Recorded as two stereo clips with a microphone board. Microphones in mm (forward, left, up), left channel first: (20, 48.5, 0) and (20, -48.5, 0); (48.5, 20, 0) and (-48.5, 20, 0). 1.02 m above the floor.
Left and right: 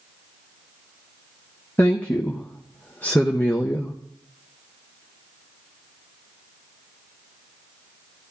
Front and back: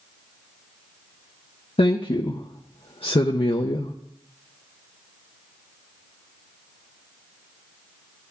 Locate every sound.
1.8 s a woman speaking: 20° left, 0.7 m